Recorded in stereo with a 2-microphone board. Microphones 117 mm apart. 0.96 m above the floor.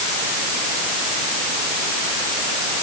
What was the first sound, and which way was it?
Only background noise.